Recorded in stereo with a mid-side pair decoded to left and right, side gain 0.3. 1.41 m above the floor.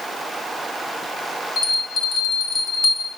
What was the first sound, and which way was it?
A bell, 50° left.